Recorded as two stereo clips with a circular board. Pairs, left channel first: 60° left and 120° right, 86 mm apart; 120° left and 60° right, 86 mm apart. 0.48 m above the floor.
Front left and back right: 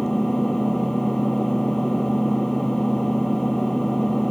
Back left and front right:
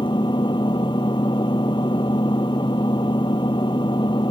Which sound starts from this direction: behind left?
An engine running, at 0.0 s.